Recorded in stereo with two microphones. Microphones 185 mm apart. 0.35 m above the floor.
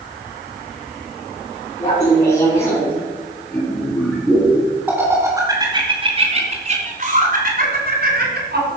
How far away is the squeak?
No squeak in this recording.